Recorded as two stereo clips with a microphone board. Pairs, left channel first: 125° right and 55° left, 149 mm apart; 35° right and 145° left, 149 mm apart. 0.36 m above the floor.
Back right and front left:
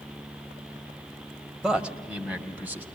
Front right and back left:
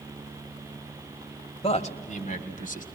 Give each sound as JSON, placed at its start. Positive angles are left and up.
{"t": 1.6, "sound": "a man speaking", "azimuth_deg": -30, "distance_m": 1.2}